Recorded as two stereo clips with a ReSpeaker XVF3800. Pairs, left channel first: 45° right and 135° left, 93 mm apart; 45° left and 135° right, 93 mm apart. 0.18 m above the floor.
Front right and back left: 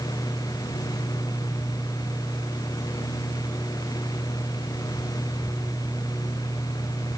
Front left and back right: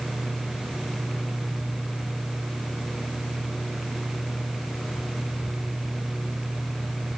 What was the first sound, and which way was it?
Only background noise.